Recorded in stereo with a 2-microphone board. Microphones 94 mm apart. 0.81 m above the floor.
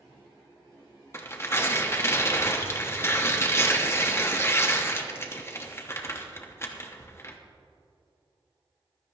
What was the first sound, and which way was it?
Tearing paper, 30° left (ahead or behind).